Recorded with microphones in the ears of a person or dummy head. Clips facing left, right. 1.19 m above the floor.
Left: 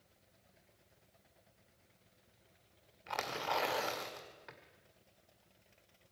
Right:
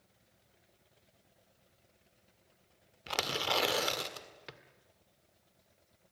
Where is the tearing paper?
45° right (ahead or behind), 1.6 m.